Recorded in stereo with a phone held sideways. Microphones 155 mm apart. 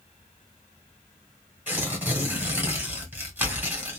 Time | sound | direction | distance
1.7 | tearing paper | 15° right (ahead or behind) | 1.6 m